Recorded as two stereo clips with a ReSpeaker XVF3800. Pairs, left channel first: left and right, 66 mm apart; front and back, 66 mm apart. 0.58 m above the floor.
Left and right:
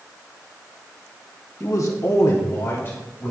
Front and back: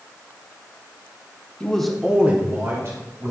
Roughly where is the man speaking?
Left.